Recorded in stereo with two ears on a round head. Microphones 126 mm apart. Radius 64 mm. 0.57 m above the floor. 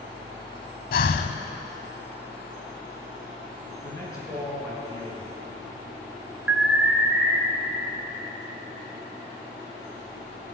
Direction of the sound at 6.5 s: 10° right (ahead or behind).